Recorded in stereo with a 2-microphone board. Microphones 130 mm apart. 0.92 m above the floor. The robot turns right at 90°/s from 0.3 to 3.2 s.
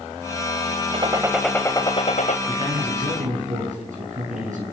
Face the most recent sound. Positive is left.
turn(degrees=-85)